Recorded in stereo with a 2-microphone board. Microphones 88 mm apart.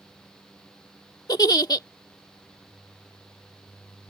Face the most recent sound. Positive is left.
turn(degrees=45)  # may be behind; listen again after turning